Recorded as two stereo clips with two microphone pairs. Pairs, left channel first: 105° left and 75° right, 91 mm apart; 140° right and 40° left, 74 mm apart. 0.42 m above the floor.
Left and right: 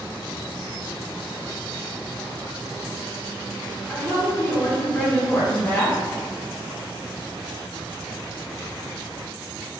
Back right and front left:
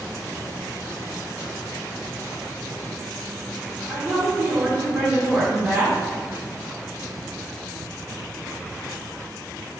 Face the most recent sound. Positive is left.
turn(degrees=60)